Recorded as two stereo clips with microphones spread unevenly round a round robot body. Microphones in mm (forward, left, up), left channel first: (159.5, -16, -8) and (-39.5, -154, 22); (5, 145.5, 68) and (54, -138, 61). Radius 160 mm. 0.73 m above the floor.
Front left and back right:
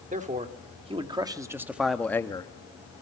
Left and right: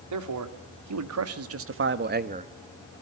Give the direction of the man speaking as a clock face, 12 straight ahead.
3 o'clock.